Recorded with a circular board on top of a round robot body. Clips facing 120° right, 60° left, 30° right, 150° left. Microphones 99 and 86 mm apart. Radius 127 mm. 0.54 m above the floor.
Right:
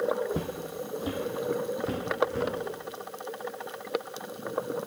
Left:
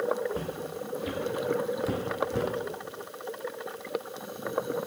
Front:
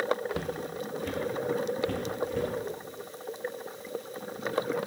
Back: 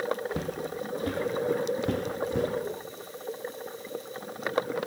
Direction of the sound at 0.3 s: 145° right.